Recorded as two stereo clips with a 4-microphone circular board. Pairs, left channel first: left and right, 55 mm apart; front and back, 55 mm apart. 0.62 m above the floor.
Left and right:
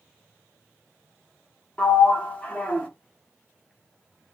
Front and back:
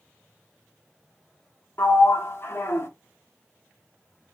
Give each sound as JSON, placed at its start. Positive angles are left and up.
{"t": 1.8, "sound": "a sliding door", "azimuth_deg": 30, "distance_m": 0.6}